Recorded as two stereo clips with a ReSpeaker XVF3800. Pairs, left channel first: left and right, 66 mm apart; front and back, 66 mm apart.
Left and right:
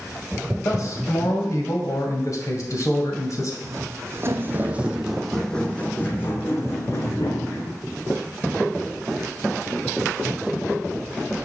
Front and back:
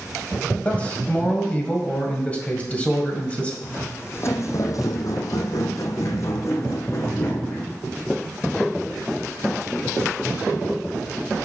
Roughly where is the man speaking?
Ahead left.